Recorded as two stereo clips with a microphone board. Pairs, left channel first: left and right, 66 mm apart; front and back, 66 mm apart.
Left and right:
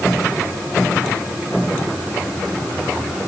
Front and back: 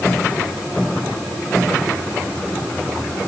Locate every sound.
Only background noise.